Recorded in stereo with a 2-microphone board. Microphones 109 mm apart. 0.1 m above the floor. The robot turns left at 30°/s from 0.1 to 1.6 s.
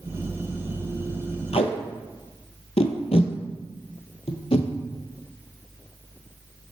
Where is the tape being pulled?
65° left (ahead or behind), 0.6 m.